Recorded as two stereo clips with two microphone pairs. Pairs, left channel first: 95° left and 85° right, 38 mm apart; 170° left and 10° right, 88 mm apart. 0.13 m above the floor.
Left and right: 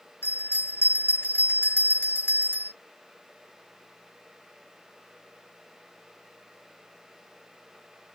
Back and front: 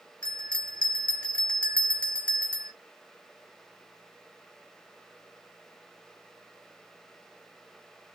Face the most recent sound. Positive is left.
turn(degrees=95)